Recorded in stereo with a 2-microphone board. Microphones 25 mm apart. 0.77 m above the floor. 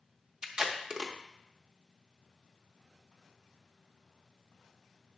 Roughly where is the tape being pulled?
Right.